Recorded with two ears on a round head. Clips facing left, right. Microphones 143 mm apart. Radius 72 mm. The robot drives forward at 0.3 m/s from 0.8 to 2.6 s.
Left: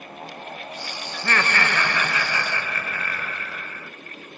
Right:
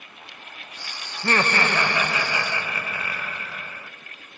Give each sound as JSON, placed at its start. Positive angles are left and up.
{"t": 1.1, "sound": "laughter", "side_deg": -20, "distance_m": 0.6}